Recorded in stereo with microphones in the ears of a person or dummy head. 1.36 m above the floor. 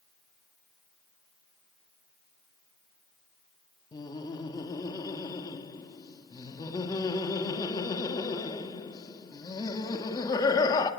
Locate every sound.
3.9 s laughter: 25° left (ahead or behind), 2 m